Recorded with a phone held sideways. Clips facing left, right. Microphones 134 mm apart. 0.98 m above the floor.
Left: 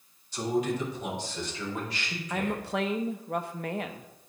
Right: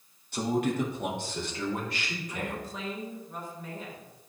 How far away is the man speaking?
About 1.5 m.